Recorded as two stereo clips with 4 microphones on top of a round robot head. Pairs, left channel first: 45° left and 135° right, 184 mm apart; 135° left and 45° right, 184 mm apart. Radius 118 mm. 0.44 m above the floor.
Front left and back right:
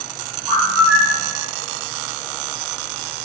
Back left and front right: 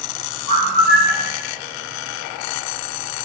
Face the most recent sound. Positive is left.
turn(degrees=150)